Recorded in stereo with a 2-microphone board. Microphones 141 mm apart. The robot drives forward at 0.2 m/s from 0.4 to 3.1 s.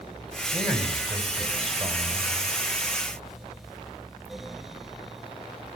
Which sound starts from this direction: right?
A man speaking, at 0.5 s.